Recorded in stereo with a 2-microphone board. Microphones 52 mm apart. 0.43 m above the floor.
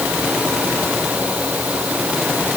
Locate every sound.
Only background noise.